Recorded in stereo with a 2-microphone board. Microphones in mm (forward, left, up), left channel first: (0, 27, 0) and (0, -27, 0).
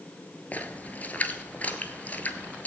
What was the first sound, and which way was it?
A splash, 30° left (ahead or behind).